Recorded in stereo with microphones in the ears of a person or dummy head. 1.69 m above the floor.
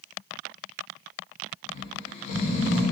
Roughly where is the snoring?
Left.